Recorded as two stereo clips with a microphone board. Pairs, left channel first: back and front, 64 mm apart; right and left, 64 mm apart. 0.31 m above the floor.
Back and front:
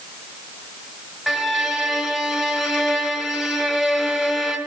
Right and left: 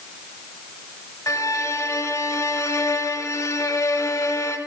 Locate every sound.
1.3 s a violin: 80° right, 1.2 m